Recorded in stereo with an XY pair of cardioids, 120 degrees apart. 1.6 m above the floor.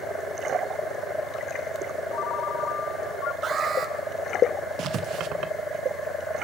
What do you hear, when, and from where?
2.1 s a ringtone: 70° left, 2 m
3.4 s an alarm: 45° right, 5 m
4.8 s writing: 60° right, 1.9 m